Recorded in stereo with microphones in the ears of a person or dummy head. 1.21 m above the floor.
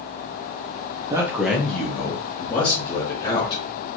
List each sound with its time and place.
1.1 s a man speaking: 20° right (ahead or behind), 0.6 m; by 3.6 s 35° left (ahead or behind), 2 m